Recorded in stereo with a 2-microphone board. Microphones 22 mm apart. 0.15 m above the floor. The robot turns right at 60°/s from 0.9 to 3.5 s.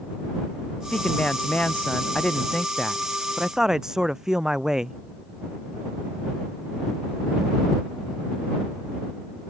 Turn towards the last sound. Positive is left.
turn(degrees=-155)